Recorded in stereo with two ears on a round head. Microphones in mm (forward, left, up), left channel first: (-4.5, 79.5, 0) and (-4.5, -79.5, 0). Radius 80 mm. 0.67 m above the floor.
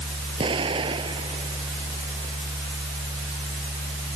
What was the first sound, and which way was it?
An explosion, 30° right (ahead or behind).